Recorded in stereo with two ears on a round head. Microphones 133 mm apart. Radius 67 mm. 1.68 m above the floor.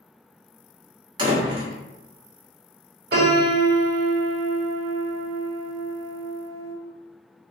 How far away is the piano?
About 1.3 m.